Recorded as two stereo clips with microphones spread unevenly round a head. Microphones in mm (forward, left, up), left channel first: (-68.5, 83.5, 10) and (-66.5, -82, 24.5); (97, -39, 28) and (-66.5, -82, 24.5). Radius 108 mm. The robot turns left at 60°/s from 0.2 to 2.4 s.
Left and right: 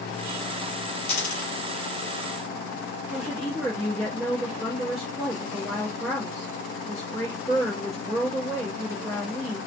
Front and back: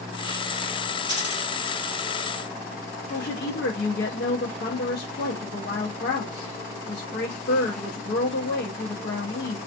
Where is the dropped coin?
75° left, 1.7 m; by 1.5 s 50° left, 1.7 m.